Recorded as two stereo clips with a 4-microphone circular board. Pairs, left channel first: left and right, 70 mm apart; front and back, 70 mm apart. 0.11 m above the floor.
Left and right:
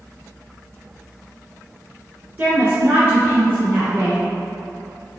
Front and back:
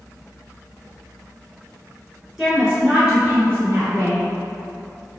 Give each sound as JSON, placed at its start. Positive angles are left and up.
{"t": 2.4, "sound": "a woman speaking", "azimuth_deg": -100, "distance_m": 1.8}